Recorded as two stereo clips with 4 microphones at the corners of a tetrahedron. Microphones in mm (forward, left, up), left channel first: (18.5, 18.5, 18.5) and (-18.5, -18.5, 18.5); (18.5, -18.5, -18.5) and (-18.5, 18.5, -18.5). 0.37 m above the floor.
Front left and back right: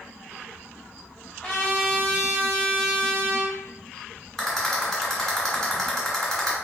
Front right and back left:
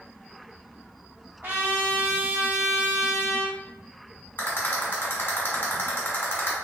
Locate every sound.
1.4 s a trumpet: 120° left, 1.7 m
4.4 s a rattle: 35° right, 1.6 m